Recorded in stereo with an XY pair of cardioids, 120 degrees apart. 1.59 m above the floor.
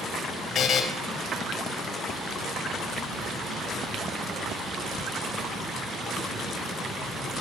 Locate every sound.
0.6 s a buzzer: 55° left, 1.3 m